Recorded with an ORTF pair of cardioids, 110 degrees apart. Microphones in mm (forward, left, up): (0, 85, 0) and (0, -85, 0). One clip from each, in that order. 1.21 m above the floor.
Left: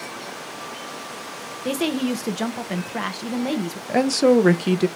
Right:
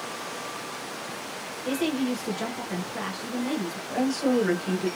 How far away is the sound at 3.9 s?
About 0.6 m.